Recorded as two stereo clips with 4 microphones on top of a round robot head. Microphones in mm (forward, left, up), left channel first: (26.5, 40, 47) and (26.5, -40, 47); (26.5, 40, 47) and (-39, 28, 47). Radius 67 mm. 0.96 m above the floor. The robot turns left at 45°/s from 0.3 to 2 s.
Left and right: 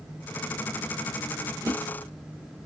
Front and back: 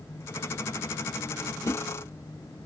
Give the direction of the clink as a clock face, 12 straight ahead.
I don't hear a clink.